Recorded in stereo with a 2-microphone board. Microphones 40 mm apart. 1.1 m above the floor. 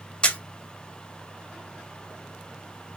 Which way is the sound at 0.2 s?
25° left (ahead or behind).